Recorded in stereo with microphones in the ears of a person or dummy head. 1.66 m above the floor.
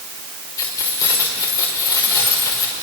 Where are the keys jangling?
25° left (ahead or behind), 5 m.